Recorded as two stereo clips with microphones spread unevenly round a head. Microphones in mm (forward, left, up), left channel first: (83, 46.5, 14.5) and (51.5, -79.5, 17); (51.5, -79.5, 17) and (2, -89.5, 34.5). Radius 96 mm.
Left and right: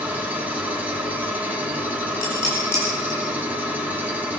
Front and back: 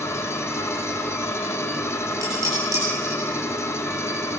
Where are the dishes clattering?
155° left, 8 m.